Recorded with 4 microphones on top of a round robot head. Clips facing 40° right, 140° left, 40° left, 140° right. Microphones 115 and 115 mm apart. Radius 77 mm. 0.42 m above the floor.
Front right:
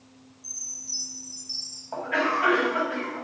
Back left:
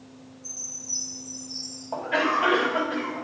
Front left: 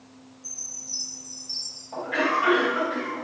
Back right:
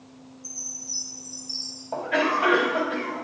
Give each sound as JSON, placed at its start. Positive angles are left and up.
{"t": 0.4, "sound": "a chime", "azimuth_deg": -60, "distance_m": 4.0}
{"t": 1.9, "sound": "a cough", "azimuth_deg": -155, "distance_m": 3.5}